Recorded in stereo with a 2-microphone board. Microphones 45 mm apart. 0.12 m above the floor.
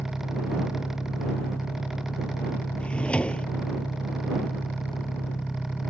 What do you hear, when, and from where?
0.0 s an engine running: 70° left (ahead or behind)
2.8 s a drawer: 30° left (ahead or behind)